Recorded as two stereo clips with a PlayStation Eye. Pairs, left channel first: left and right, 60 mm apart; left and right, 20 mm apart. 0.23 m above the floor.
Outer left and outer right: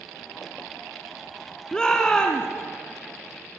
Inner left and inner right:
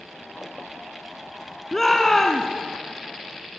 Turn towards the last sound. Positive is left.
turn(degrees=10)  # may be behind; listen again after turning